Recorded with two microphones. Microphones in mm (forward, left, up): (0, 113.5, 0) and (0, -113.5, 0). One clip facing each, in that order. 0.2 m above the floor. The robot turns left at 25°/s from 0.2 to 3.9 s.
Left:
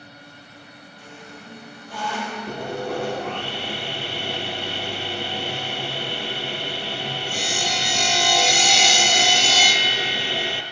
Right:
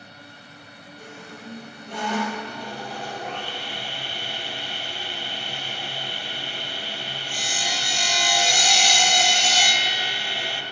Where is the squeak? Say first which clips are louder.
Right 2 dB; 135° right, 4.5 m; by 2.4 s 170° right, 4.5 m.